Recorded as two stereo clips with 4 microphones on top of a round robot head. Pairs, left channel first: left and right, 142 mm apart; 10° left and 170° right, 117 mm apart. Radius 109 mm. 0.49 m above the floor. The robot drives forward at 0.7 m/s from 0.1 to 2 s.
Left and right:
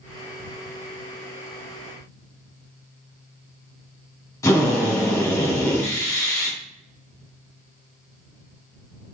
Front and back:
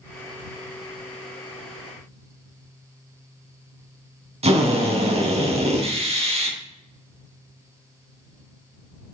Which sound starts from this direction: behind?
A drill, at 4.4 s.